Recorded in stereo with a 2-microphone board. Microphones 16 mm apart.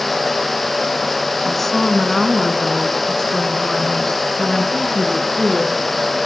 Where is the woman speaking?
15° left (ahead or behind), 4 m; by 5.8 s 35° left (ahead or behind), 6.5 m.